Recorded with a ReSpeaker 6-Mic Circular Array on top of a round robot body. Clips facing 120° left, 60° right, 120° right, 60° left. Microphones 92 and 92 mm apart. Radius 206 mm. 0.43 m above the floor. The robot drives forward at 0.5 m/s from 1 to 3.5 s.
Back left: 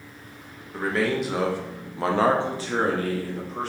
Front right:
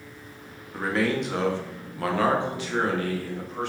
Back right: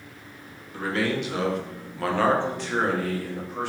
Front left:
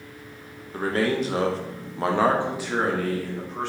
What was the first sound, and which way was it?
A man speaking, 30° left.